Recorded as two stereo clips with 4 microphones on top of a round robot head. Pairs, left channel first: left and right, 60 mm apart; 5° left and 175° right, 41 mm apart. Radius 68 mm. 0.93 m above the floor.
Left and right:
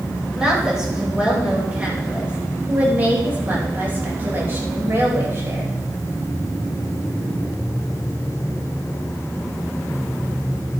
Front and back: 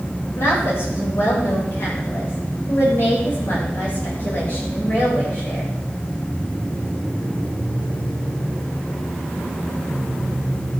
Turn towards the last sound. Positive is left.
turn(degrees=-45)